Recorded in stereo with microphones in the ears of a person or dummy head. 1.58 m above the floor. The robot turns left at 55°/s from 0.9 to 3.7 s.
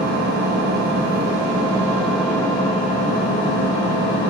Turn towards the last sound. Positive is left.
turn(degrees=95)